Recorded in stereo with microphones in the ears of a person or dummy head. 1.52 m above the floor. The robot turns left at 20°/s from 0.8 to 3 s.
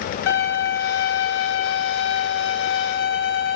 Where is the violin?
115° left, 0.8 m; by 3.6 s 70° left, 0.8 m.